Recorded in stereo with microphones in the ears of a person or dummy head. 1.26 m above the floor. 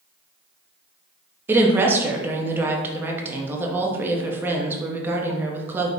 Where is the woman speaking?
10° right (ahead or behind), 0.7 m.